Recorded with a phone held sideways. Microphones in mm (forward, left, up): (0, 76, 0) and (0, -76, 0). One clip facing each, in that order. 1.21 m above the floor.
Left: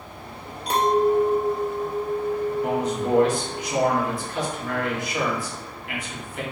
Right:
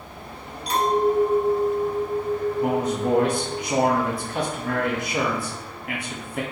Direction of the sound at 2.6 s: 55° right (ahead or behind).